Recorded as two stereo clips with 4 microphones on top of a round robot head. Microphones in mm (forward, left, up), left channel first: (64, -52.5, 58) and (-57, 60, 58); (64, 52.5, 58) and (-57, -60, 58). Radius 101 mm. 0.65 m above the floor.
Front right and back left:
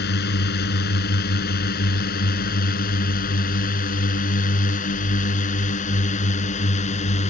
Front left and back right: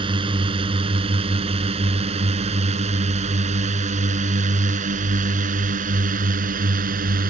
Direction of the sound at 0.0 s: 75° right.